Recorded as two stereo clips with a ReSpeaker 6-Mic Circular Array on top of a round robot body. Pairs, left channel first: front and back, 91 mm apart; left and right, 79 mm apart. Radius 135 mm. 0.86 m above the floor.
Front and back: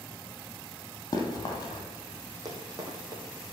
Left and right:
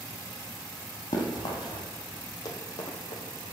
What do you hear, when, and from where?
1.1 s running footsteps: 50° left, 1.9 m
2.5 s running footsteps: 130° left, 2.5 m